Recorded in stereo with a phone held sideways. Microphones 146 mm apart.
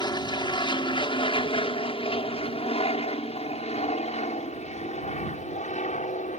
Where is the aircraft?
30° left (ahead or behind); by 6.4 s 60° left (ahead or behind).